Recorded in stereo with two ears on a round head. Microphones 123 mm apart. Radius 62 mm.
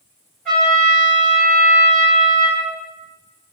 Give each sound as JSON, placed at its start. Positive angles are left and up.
{"t": 0.5, "sound": "a trumpet", "side_deg": 10, "distance_m": 1.4}